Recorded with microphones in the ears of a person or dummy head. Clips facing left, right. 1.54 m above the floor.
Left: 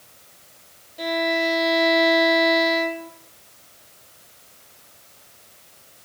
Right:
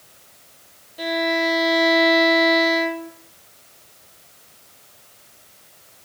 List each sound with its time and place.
1.0 s a violin: 15° right (ahead or behind), 1.3 m